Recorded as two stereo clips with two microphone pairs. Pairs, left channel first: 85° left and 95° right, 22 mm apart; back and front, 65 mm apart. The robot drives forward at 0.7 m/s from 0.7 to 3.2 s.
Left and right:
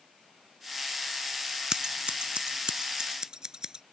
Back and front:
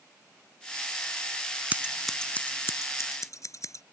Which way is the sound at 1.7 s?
60° right.